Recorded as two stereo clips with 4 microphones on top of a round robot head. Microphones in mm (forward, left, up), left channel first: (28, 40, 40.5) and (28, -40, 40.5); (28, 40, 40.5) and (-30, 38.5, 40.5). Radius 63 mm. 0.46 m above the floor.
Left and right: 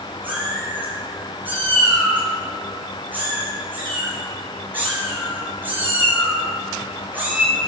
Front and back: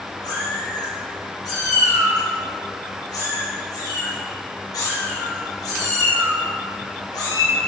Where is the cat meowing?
20° right, 5 m.